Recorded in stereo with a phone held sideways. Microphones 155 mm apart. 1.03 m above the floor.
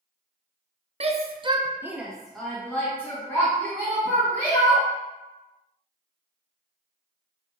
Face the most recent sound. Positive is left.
turn(degrees=20)  # may be behind; listen again after turning